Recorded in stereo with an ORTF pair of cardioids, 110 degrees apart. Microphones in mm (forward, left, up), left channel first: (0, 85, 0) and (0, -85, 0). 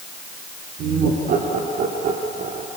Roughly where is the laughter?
Ahead right.